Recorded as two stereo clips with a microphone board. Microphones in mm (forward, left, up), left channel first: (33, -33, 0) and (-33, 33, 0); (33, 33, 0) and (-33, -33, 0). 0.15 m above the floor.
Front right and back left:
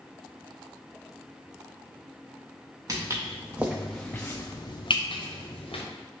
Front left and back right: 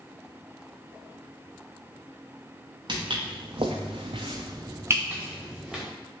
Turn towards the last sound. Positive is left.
turn(degrees=-50)